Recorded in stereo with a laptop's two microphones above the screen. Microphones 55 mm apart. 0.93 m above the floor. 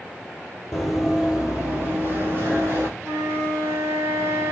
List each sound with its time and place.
0.7 s running footsteps: 10° left (ahead or behind), 1.0 m; by 2.9 s 45° right (ahead or behind), 2 m
3.0 s a flute: 65° right (ahead or behind), 2 m